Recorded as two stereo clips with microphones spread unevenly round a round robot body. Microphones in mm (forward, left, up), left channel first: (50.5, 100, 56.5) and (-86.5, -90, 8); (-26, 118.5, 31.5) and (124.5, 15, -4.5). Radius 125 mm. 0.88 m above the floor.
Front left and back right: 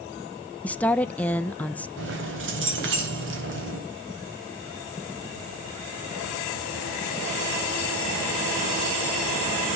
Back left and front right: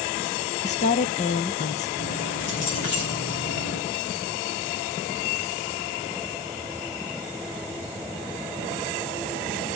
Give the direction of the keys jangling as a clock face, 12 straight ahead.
6 o'clock.